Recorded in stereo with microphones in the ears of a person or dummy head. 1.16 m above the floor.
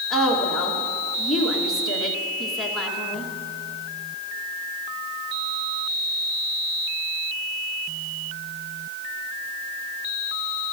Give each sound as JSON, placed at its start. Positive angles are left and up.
{"t": 0.1, "sound": "a woman speaking", "side_deg": 0, "distance_m": 1.6}